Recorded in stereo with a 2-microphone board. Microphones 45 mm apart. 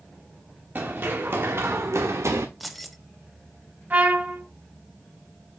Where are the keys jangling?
Centre (ahead or behind), 0.6 m.